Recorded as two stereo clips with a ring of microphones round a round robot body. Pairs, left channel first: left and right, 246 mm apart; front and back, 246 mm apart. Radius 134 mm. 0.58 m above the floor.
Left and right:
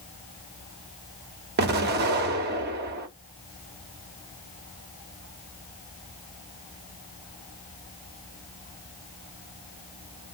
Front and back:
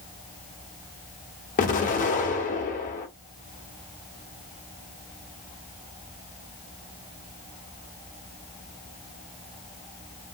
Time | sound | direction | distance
1.6 | an explosion | 50° right | 0.6 m